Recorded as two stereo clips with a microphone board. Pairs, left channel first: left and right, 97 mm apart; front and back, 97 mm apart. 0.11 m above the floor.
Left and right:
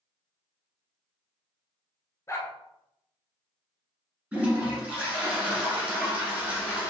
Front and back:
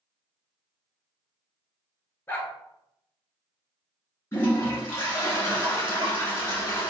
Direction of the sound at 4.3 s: 35° right.